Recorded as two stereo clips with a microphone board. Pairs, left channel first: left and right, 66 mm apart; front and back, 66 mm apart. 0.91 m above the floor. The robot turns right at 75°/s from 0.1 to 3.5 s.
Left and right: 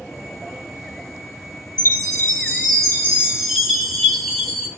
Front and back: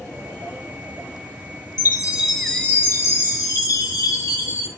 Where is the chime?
130° right, 2.5 m; by 4.7 s 5° right, 2.5 m.